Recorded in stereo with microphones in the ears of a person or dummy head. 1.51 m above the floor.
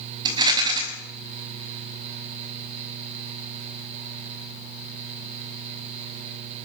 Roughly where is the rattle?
Right.